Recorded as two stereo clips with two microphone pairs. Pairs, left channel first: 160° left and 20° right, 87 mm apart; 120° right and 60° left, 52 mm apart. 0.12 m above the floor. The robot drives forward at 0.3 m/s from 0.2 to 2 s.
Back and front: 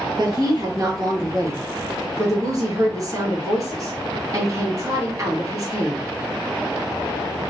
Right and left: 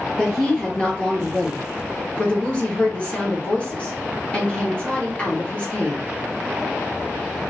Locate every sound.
0.2 s a woman speaking: 50° right, 2.5 m; by 6.0 s 60° right, 2.5 m